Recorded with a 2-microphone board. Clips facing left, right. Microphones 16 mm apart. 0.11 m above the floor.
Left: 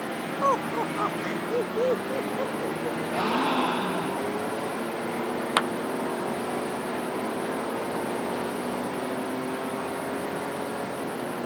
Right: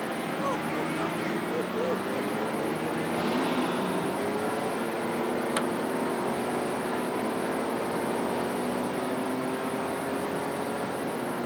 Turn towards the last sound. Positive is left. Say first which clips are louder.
# left 8 dB
turn(degrees=65)  # may be behind; listen again after turning